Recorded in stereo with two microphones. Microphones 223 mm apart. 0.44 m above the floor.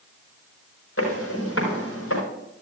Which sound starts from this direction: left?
Footsteps, at 1.0 s.